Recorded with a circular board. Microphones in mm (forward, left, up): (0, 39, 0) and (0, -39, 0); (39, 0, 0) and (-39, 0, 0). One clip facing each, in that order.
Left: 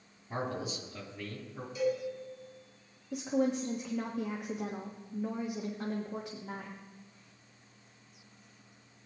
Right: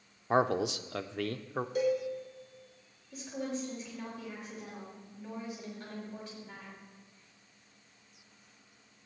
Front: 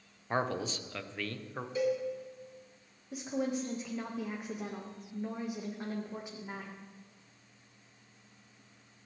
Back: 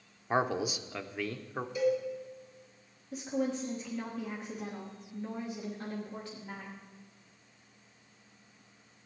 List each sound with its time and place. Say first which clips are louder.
0.3 s a man speaking: right 9 dB, back 3 dB; 100° right, 0.6 m
1.8 s a cowbell: right 2 dB, back 2 dB; 55° right, 5 m
3.1 s a woman speaking: left 7 dB, back 1 dB; 70° left, 1.3 m